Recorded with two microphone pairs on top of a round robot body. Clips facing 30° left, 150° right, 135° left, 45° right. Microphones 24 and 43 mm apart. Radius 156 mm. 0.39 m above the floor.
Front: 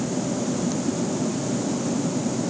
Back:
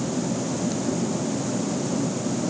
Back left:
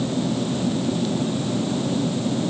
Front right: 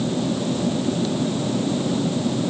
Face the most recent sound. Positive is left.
No sound to turn to.